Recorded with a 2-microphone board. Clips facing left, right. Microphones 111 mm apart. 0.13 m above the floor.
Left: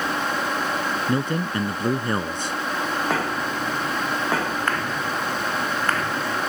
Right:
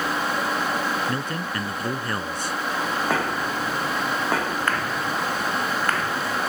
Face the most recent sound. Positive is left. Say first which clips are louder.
# left 4 dB
turn(degrees=20)  # may be behind; listen again after turning